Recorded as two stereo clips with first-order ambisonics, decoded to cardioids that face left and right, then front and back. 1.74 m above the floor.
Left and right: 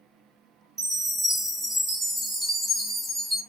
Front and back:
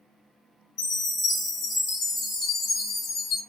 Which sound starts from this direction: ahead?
A chime, at 0.8 s.